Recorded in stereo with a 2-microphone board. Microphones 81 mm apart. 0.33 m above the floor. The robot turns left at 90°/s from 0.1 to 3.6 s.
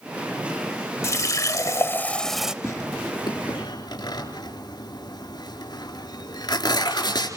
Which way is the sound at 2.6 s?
35° left (ahead or behind).